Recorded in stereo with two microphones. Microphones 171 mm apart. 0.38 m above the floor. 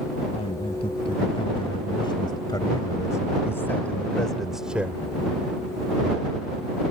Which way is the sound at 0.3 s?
35° left (ahead or behind).